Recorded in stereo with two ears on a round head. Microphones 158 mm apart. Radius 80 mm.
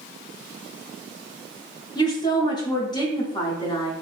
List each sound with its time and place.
1.9 s a woman speaking: 25° left (ahead or behind), 0.7 m